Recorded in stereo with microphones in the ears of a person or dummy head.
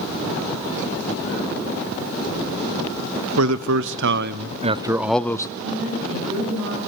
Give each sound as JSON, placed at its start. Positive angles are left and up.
{"t": 3.4, "sound": "a man speaking", "side_deg": -80, "distance_m": 1.0}
{"t": 5.6, "sound": "a woman speaking", "side_deg": -40, "distance_m": 9.0}